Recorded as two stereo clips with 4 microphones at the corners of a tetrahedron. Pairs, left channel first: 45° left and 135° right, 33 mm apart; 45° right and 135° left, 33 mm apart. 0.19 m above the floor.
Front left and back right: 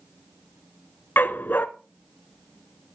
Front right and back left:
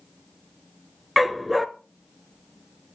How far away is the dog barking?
About 0.9 m.